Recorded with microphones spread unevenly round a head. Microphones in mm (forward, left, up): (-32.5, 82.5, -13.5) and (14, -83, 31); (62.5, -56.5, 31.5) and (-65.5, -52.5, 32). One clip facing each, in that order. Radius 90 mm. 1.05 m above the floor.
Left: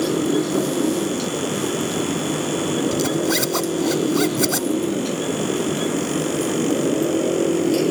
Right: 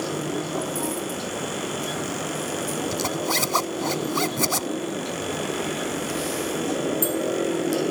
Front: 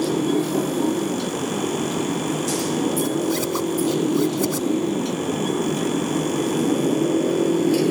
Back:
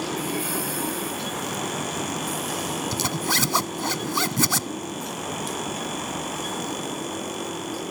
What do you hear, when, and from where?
0.0 s a motorcycle: 55° left; by 7.9 s 40° left
2.9 s a zipper: 175° right